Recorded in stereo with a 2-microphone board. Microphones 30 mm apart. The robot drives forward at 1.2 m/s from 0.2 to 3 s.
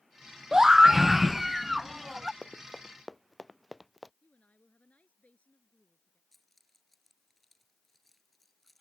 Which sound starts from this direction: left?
A woman speaking, at 4.2 s.